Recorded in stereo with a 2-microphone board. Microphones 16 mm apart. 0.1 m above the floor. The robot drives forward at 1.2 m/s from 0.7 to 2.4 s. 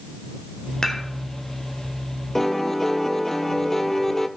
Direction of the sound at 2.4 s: 20° left (ahead or behind).